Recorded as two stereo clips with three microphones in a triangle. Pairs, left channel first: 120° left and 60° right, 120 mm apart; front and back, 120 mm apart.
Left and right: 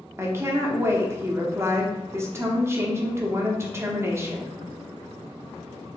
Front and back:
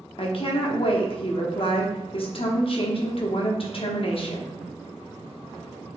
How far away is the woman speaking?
About 0.9 m.